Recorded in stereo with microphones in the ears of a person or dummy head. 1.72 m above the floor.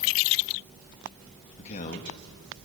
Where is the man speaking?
40° left (ahead or behind), 2.5 m.